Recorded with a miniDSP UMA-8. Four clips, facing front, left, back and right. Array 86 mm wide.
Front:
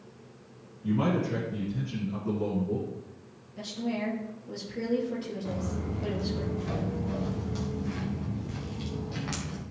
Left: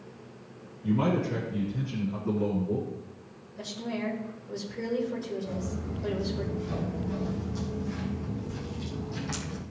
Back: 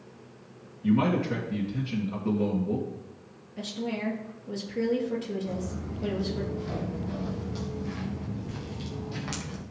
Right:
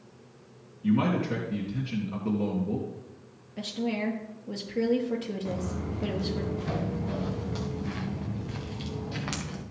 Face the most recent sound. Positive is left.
turn(degrees=-95)